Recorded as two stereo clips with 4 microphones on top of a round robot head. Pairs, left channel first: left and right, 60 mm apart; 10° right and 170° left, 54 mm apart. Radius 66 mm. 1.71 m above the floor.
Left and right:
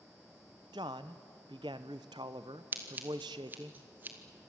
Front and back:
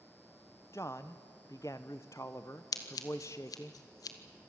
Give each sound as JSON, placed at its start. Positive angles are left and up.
{"t": 0.7, "sound": "a man speaking", "azimuth_deg": -65, "distance_m": 0.7}
{"t": 2.7, "sound": "scissors", "azimuth_deg": -25, "distance_m": 1.5}